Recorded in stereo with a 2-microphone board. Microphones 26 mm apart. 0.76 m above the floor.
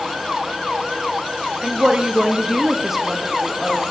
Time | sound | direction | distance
1.6 | a woman speaking | 40° right (ahead or behind) | 1.2 m